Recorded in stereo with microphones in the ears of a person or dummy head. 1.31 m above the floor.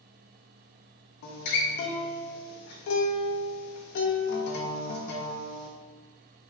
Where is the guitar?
55° left (ahead or behind), 0.6 m.